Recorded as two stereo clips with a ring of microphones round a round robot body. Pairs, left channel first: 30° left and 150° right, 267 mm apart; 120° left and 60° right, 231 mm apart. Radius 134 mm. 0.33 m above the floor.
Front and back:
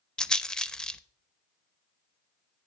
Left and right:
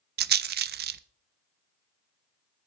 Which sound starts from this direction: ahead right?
A rattle, at 0.2 s.